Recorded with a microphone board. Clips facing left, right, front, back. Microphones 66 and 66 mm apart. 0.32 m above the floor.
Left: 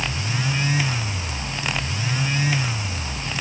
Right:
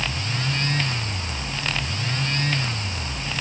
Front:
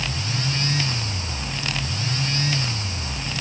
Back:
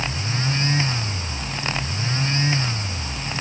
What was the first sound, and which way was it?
Only background noise.